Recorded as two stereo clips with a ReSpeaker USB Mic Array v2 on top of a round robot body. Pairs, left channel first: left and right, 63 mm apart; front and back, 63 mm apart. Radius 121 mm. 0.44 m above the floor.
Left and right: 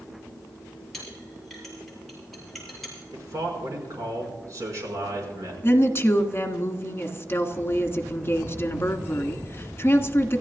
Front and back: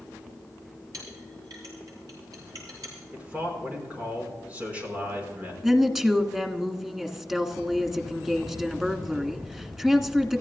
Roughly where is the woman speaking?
Left.